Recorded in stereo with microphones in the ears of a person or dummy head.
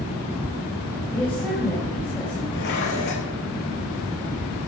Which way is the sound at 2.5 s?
55° left (ahead or behind).